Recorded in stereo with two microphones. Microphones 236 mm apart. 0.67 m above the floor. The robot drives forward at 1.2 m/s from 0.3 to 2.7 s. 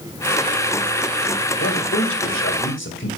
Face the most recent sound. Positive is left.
turn(degrees=55)  # may be behind; listen again after turning